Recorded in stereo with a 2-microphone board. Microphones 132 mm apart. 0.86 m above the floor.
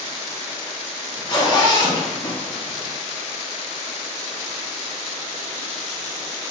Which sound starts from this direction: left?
A zipper, at 1.1 s.